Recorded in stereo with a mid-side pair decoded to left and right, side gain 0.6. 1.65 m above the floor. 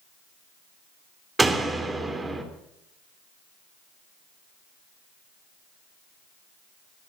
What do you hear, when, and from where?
1.4 s a door slam: 15° right, 3 m